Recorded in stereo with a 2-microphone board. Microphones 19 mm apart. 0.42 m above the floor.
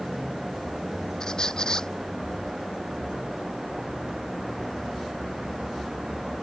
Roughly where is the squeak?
Left.